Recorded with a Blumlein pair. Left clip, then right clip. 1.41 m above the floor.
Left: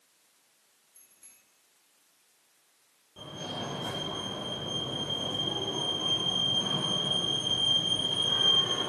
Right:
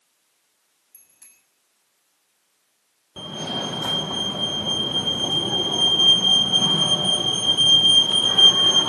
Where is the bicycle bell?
50° right, 7 m.